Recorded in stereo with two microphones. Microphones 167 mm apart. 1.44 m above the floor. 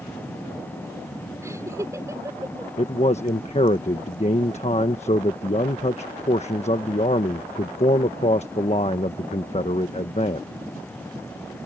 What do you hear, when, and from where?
1.4 s laughter: 20° right (ahead or behind)
2.8 s a man speaking: 40° left (ahead or behind)